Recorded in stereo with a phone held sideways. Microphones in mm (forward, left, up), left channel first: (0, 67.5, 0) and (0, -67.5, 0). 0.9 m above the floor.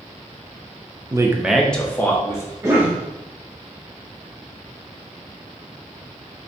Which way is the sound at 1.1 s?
30° right (ahead or behind).